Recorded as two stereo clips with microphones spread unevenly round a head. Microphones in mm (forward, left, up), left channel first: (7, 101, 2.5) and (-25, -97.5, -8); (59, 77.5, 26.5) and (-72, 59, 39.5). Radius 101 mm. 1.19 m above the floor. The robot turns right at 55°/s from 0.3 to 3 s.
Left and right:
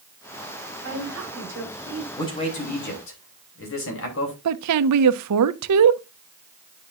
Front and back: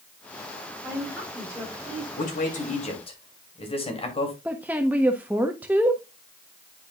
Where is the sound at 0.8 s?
100° right, 5 m; by 2.1 s 30° right, 5 m.